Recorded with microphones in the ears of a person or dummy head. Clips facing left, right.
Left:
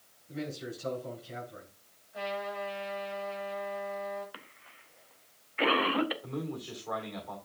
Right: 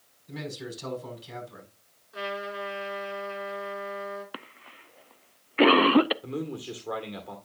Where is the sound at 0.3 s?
85° right, 6 m.